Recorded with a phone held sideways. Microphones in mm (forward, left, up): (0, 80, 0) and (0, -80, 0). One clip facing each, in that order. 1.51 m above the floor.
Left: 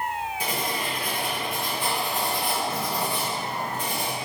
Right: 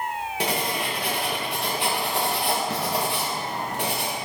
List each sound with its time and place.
0.4 s writing: 70° right (ahead or behind), 1.7 m